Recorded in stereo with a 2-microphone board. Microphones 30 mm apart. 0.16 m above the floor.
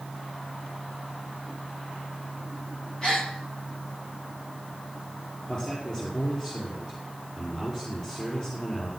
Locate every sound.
3.0 s a gasp: 25° left (ahead or behind), 9 m
5.5 s a man speaking: 25° left (ahead or behind), 5 m